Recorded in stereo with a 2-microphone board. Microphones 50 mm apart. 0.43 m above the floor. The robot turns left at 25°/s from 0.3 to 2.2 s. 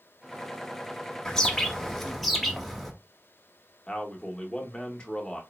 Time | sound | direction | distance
1.2 | a bird | 15° left (ahead or behind) | 1.0 m
3.9 | a man speaking | 20° left (ahead or behind) | 1.2 m